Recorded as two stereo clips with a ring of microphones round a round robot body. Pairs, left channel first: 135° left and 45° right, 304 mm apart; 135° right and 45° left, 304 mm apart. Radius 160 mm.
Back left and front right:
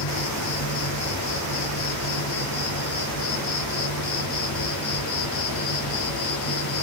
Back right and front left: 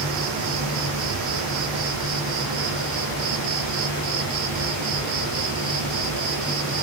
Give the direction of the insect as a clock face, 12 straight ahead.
9 o'clock.